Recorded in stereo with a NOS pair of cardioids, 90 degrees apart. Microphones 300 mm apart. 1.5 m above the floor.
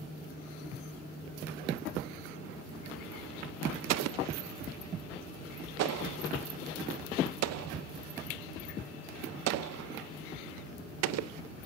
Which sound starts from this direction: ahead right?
An explosion, at 3.9 s.